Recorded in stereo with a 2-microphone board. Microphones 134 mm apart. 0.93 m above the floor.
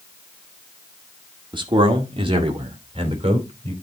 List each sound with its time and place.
1.5 s a man speaking: 35° right (ahead or behind), 1.6 m; by 3.7 s 45° right (ahead or behind), 3 m